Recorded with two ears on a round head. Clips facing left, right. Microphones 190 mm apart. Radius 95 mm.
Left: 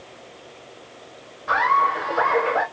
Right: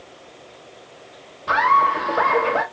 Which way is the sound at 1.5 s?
50° right (ahead or behind).